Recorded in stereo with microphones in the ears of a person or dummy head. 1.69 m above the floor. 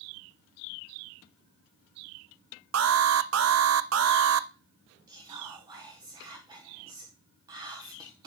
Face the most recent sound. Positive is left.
turn(degrees=-25)  # may be behind; listen again after turning